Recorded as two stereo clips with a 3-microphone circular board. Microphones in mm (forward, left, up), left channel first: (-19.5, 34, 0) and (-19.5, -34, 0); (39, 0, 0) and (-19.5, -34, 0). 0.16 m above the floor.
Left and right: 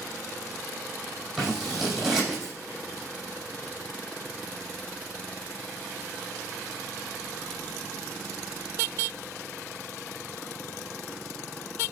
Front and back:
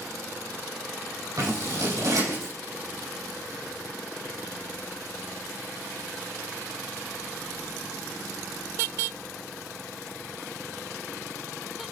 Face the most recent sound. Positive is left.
turn(degrees=-170)